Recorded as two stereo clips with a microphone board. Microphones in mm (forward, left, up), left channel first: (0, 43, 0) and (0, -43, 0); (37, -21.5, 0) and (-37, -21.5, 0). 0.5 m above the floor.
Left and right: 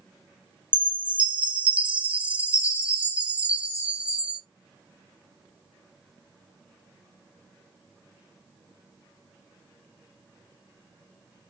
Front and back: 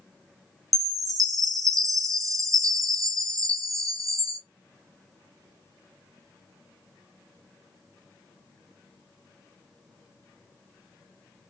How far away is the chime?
About 0.8 m.